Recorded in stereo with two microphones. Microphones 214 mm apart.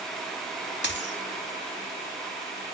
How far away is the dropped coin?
About 0.6 m.